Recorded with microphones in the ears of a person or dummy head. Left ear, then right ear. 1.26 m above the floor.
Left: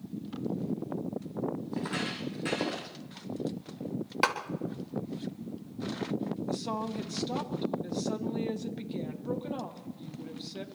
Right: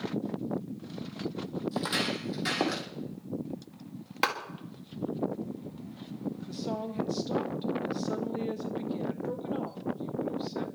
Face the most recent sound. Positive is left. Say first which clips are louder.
# left 1 dB
turn(degrees=10)  # may be behind; listen again after turning